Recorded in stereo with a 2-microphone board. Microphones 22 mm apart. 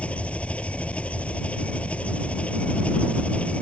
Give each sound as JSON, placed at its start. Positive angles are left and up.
{"t": 0.0, "sound": "an engine running", "side_deg": 75}